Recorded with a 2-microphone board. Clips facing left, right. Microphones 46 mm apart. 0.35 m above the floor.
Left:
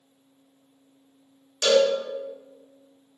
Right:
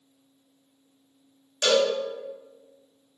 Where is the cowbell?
10° right (ahead or behind), 1.4 m.